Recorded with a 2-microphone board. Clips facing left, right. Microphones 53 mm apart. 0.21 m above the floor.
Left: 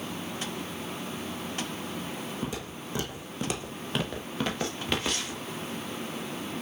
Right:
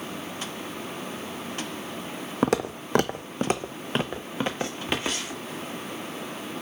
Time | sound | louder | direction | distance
2.4 | footsteps | right 11 dB | 70° right (ahead or behind) | 0.5 m